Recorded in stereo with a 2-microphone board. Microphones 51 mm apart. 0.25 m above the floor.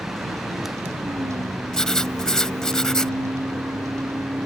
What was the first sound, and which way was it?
A vehicle, 80° right.